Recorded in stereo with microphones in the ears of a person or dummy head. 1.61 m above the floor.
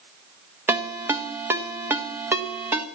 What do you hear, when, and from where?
0.7 s a ringtone: 10° right (ahead or behind), 1.4 m